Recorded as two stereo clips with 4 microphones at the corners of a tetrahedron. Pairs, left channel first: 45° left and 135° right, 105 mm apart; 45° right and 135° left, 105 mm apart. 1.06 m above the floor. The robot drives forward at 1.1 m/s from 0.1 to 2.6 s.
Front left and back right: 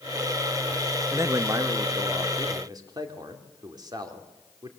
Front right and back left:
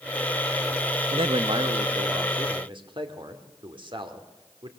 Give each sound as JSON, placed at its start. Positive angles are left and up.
{"t": 1.1, "sound": "a man speaking", "azimuth_deg": 160, "distance_m": 0.7}